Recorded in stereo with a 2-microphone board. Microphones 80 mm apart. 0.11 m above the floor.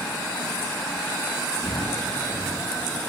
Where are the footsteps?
50° left (ahead or behind), 8 m; by 2.7 s 55° left (ahead or behind), 8 m.